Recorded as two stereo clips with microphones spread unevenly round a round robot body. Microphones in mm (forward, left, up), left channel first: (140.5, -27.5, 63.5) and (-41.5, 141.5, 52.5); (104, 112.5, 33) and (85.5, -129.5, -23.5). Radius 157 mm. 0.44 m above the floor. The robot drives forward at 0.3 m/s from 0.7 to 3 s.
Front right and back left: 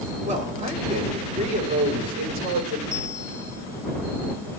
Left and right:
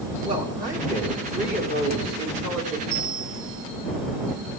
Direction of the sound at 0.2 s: 160° right.